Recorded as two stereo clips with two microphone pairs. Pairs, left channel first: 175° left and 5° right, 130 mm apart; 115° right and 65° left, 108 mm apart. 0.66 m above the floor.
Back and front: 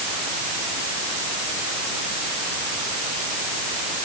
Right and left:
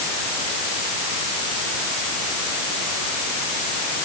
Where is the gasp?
No gasp in this recording.